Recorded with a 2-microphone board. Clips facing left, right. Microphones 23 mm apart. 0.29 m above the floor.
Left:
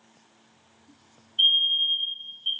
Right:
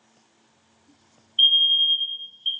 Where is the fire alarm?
25° right (ahead or behind), 1.9 m.